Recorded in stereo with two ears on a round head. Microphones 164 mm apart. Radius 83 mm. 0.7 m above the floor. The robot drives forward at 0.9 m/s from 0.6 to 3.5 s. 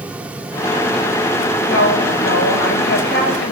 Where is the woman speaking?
75° left (ahead or behind), 3.5 m; by 3.5 s 60° left (ahead or behind), 4 m.